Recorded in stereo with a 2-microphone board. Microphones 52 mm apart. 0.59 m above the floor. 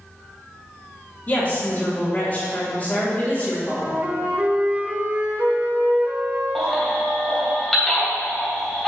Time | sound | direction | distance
1.3 | a woman speaking | 35° left (ahead or behind) | 2 m
3.7 | a flute | 35° right (ahead or behind) | 1.0 m
6.5 | a baby crying | centre (ahead or behind) | 2.5 m